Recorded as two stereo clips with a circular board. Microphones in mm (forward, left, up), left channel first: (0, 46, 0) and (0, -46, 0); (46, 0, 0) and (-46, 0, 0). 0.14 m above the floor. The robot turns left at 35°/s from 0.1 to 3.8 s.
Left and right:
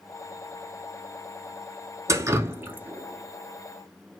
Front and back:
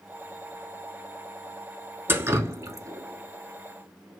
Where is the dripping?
125° right, 0.6 m; by 4.2 s 175° left, 0.6 m.